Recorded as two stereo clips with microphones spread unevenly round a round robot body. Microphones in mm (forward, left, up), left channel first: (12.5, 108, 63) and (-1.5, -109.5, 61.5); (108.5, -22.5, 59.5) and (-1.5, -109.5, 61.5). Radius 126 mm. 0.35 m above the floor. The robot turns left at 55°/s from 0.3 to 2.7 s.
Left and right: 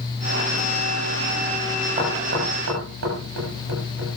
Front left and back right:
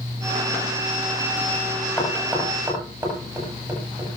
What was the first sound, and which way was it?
Knocking, 30° right.